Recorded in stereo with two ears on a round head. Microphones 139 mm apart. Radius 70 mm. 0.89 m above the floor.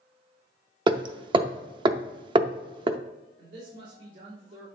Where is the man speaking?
75° right (ahead or behind), 3.5 m.